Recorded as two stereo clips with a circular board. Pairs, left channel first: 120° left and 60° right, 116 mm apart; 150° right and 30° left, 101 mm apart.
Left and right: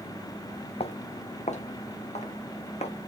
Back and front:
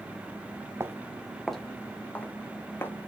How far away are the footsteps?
About 0.6 m.